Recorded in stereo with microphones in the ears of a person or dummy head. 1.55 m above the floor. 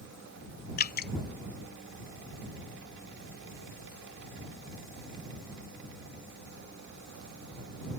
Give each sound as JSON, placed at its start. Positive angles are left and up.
{"t": 0.8, "sound": "dripping", "side_deg": 50}